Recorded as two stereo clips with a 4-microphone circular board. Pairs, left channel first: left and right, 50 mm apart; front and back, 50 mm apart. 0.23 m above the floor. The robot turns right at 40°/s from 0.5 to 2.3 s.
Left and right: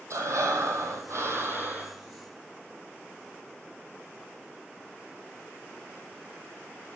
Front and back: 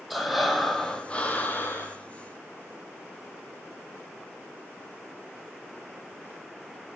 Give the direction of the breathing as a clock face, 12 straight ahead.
3 o'clock.